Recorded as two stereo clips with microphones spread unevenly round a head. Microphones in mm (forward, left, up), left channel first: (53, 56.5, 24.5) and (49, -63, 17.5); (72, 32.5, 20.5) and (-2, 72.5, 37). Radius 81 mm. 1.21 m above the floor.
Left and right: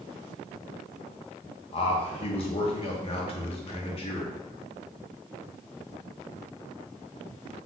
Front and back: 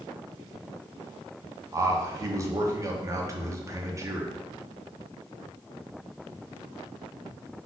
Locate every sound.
1.7 s a man speaking: 100° left, 0.7 m